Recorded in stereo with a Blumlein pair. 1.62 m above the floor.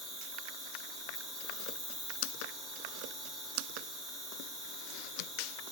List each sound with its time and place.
0.0 s an insect: 15° right, 1.4 m